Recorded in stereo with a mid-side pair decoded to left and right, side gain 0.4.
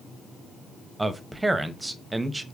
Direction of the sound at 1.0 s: 15° right.